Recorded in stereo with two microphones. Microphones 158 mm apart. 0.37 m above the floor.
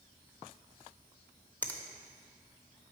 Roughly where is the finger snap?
Centre.